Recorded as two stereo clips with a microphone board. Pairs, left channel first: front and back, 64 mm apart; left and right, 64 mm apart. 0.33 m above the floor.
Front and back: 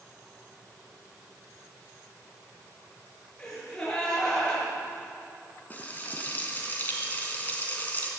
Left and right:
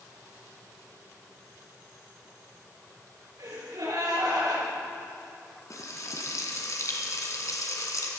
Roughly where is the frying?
Ahead left.